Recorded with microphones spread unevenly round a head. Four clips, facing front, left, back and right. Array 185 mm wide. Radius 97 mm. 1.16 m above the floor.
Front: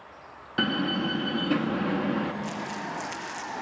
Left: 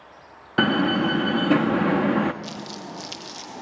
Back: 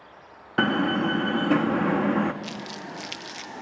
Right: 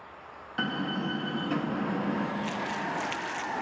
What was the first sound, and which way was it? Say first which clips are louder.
A door slam: left 11 dB, back 4 dB; 110° left.